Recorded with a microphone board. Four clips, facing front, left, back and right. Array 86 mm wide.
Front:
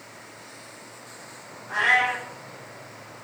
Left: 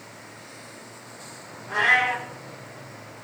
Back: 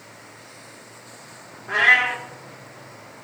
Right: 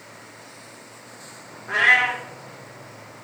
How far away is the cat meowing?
About 2 m.